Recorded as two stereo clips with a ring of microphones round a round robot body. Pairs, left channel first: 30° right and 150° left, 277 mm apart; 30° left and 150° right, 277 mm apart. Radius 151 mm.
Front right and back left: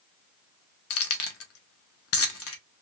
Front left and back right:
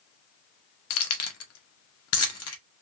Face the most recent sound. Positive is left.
turn(degrees=0)